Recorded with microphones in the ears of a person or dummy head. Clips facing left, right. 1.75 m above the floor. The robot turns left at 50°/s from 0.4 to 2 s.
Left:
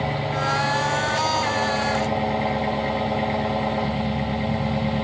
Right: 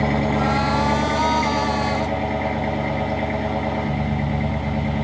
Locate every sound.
0.0 s an engine running: 100° right, 1.3 m; by 5.0 s straight behind, 1.3 m